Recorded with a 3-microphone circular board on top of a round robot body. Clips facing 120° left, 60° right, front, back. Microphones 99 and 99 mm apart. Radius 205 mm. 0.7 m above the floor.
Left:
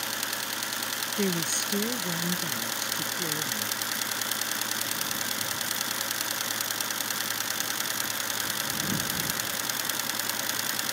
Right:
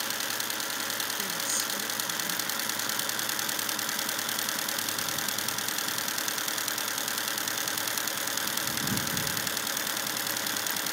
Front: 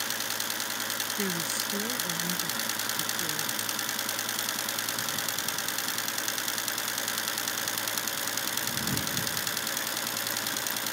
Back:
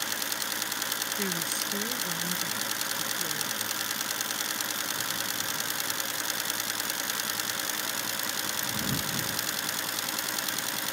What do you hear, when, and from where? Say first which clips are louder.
1.2 s a woman speaking: left 7 dB, front 1 dB; 90° left